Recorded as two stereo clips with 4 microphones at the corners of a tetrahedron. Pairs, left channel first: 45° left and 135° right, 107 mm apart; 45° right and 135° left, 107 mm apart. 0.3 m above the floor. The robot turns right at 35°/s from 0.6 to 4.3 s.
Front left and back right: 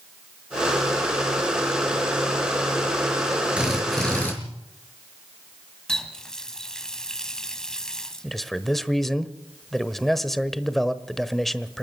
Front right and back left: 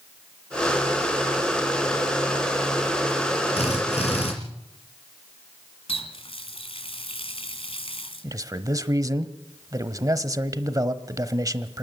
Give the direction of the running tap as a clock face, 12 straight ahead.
1 o'clock.